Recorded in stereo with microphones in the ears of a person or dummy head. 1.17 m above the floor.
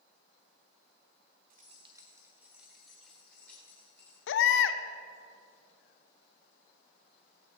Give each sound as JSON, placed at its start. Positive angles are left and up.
{"t": 1.5, "sound": "keys jangling", "side_deg": -45, "distance_m": 1.0}
{"t": 4.3, "sound": "a baby crying", "side_deg": 70, "distance_m": 0.6}